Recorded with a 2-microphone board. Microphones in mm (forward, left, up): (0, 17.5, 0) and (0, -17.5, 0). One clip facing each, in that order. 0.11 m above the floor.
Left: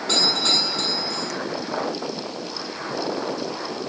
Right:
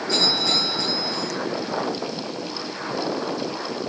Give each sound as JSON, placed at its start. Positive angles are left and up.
{"t": 0.1, "sound": "a doorbell", "side_deg": 75, "distance_m": 8.5}